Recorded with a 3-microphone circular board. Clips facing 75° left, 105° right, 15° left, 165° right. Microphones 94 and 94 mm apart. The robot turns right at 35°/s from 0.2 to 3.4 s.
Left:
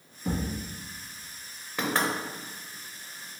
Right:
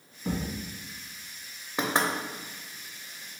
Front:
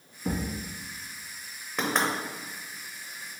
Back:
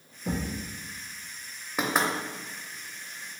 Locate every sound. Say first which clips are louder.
0.2 s a thud: left 1 dB, front 1 dB; 25° right, 1.4 m; by 0.6 s 15° right, 1.4 m
1.8 s knocking: right 1 dB, back 1 dB; 105° right, 0.5 m; by 2.1 s 90° right, 0.5 m